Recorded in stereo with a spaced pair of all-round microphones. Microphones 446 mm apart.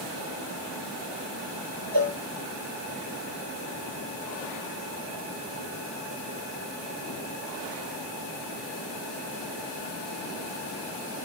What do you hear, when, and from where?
1.9 s a cowbell: 55° right (ahead or behind), 2.5 m